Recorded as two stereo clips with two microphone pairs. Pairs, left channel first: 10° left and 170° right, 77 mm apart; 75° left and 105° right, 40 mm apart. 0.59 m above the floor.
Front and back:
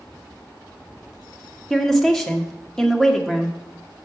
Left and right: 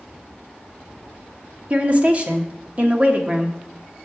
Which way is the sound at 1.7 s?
75° right.